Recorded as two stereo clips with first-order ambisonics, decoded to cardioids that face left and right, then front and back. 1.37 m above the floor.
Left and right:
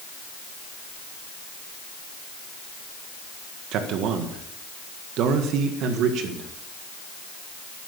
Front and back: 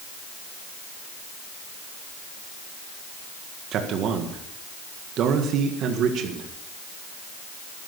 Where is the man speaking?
130° right, 1.6 m.